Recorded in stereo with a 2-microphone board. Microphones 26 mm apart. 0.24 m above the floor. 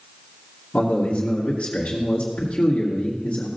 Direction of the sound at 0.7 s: 55° left (ahead or behind).